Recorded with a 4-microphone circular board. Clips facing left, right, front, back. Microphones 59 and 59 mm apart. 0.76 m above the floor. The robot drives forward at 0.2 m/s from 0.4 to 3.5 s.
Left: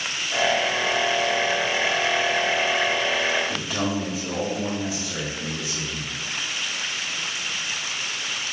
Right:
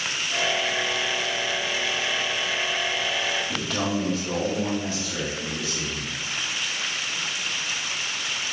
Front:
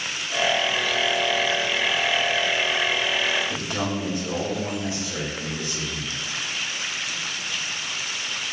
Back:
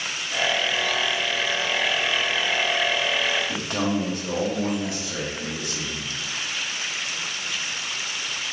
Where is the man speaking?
170° left, 1.2 m.